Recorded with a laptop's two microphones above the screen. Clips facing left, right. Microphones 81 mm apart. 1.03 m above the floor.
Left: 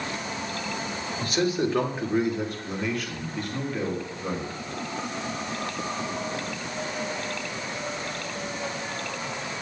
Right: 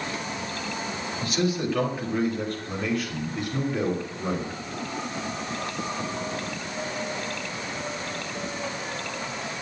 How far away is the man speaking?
About 1.8 m.